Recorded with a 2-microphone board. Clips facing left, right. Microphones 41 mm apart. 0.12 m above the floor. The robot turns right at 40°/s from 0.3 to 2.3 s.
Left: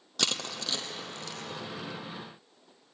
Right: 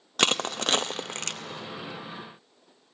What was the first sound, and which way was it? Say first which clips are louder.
Crushing: right 7 dB; 45° right (ahead or behind).